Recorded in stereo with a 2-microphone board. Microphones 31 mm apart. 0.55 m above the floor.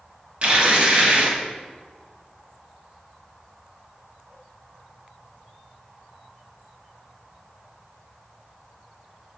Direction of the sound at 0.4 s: 45° right (ahead or behind).